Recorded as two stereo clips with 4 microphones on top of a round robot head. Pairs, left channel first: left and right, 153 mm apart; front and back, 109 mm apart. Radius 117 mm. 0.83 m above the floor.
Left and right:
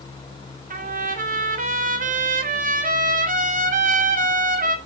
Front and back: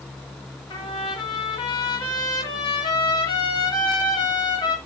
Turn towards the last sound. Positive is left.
turn(degrees=-55)